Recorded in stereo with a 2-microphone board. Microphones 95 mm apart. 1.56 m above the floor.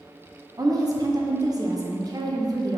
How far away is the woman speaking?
About 0.9 m.